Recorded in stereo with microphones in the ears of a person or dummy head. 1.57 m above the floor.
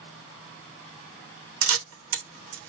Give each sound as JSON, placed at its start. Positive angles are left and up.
{"t": 1.6, "sound": "a camera shutter", "side_deg": -75, "distance_m": 1.1}